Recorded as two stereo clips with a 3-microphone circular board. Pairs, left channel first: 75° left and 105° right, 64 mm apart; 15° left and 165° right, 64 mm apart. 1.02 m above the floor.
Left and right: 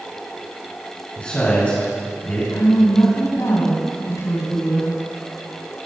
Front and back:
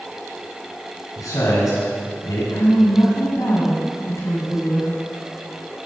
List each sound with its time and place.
1.2 s a man speaking: 15° left, 7 m
2.5 s a woman speaking: 45° left, 7 m